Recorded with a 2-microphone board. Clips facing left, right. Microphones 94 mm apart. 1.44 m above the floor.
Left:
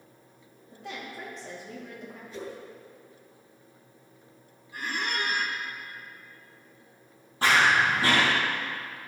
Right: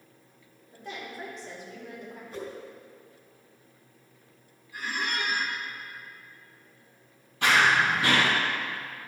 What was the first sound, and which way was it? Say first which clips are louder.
A woman speaking: even; 70° left (ahead or behind).